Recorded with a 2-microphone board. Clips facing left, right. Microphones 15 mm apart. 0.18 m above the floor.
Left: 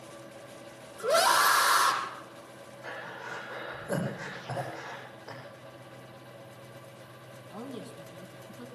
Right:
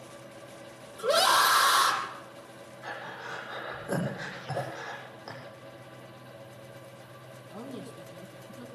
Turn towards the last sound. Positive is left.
turn(degrees=15)  # may be behind; listen again after turning